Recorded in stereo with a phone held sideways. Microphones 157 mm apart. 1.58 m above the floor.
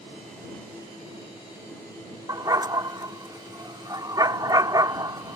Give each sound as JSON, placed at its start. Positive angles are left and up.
{"t": 2.3, "sound": "a dog barking", "side_deg": -25}